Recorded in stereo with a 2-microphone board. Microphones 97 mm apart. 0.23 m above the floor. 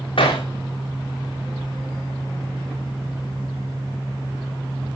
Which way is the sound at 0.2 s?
60° left (ahead or behind).